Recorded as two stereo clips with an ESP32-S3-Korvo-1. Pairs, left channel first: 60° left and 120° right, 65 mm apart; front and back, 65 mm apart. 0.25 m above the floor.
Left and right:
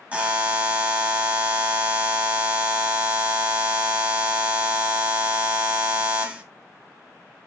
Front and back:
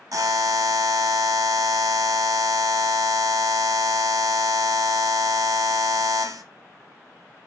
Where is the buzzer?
175° left, 0.6 m.